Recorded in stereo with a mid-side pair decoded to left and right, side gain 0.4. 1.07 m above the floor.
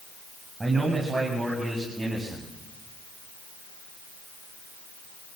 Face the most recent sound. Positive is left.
turn(degrees=-45)